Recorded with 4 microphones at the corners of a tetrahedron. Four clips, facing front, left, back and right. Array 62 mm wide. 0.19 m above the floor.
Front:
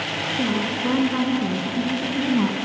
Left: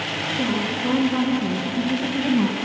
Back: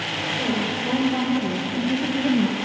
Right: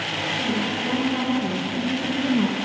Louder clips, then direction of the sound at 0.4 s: Left 3 dB, front 2 dB; 20° left.